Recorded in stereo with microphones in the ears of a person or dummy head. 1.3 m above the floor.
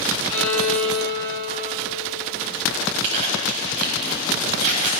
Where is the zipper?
45° right (ahead or behind), 3.5 m.